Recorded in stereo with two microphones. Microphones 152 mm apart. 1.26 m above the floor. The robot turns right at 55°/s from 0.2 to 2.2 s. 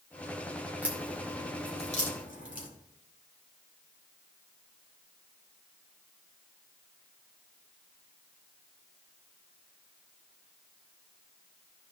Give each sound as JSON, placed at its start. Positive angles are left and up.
{"t": 0.8, "sound": "a crack", "side_deg": -10, "distance_m": 2.0}